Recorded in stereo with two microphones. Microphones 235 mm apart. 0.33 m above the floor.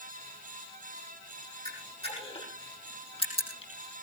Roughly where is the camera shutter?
Left.